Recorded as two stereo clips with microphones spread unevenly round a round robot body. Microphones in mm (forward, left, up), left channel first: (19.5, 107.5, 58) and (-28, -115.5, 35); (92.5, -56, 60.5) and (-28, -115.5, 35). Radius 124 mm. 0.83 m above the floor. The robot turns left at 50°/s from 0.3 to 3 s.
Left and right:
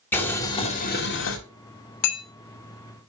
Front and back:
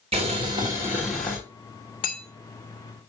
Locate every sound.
0.1 s boiling: 160° left, 2.5 m; by 1.4 s 110° left, 2.5 m
2.0 s hammering: 90° left, 3 m; by 2.2 s 80° left, 3 m